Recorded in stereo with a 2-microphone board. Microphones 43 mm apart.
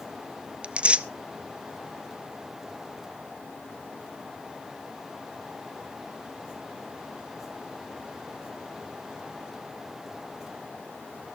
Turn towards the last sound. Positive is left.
turn(degrees=-30)  # may be behind; listen again after turning